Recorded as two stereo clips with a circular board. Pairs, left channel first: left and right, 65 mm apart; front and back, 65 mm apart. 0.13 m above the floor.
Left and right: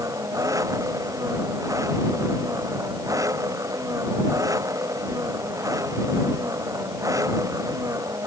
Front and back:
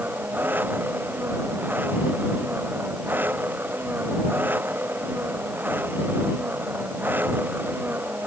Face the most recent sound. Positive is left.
turn(degrees=-120)